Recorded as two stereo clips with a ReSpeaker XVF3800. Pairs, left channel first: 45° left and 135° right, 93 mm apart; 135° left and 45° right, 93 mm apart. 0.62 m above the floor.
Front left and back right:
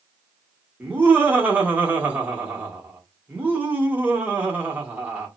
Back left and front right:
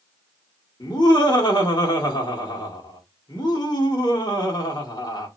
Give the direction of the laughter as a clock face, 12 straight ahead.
7 o'clock.